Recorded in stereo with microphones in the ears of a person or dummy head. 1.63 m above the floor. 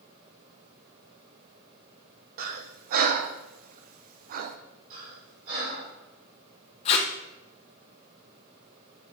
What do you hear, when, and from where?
2.4 s breathing: 50° right (ahead or behind), 0.5 m
4.9 s breathing: 45° right (ahead or behind), 3.5 m
6.8 s tape being pulled: 35° left (ahead or behind), 0.9 m